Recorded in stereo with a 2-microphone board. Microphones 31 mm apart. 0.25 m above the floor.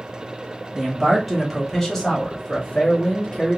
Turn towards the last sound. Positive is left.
turn(degrees=35)  # may be behind; listen again after turning